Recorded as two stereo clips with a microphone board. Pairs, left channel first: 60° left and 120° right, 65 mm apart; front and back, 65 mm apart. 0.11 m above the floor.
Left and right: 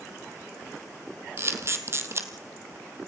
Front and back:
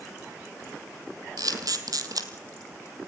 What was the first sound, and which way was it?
A camera shutter, 165° right.